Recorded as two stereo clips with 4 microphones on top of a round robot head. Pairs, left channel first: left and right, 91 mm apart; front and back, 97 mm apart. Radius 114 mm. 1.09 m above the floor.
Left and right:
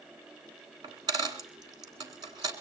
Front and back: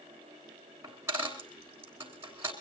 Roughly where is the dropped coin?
Right.